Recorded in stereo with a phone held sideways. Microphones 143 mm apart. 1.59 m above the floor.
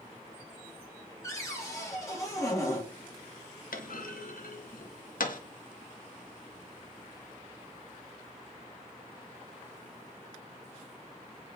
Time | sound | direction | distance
1.2 | a cupboard door | 20° left (ahead or behind) | 1.3 m
3.7 | a clunk | 75° left (ahead or behind) | 0.5 m